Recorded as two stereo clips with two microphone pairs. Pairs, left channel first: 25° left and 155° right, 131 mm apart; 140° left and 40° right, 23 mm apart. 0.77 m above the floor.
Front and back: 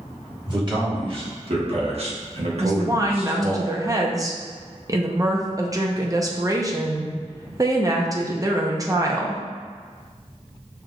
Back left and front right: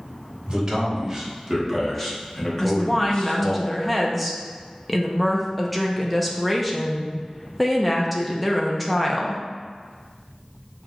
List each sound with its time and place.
0.5 s a man speaking: 105° right, 1.7 m; by 3.6 s 170° left, 1.3 m
2.6 s a woman speaking: 140° right, 0.7 m